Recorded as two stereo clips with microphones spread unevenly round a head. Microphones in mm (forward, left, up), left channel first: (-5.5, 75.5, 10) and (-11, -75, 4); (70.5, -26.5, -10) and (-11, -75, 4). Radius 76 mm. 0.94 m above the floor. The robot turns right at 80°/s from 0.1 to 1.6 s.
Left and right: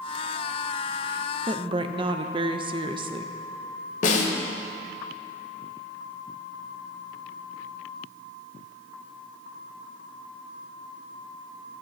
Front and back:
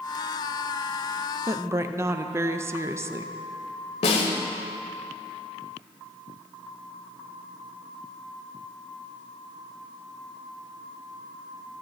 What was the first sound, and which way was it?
A woman speaking, 110° right.